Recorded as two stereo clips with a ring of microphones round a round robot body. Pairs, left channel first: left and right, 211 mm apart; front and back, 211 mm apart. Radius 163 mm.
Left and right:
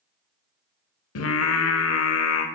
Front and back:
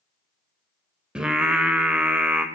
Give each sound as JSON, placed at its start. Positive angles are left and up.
{"t": 1.1, "sound": "singing", "azimuth_deg": 95, "distance_m": 0.7}